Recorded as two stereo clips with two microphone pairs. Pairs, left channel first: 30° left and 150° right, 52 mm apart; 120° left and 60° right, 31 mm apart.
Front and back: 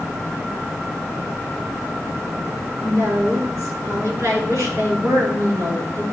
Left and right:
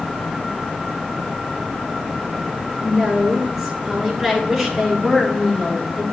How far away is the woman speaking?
About 3.5 m.